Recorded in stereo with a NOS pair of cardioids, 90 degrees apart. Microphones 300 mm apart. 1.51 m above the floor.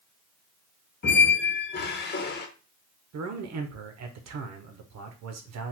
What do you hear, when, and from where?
1.0 s a squeak: 35° left, 1.1 m
3.1 s a man speaking: 60° right, 1.1 m